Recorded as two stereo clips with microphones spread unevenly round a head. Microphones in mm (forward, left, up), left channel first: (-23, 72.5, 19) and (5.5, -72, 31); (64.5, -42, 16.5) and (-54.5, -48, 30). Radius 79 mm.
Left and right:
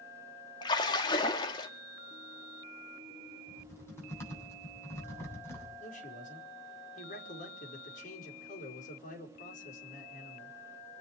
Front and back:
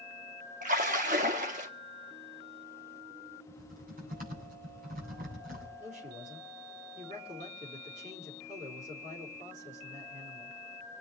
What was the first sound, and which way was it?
A splash, 165° left.